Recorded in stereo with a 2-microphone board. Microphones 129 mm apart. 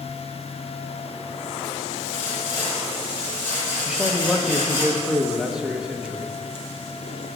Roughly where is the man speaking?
Centre.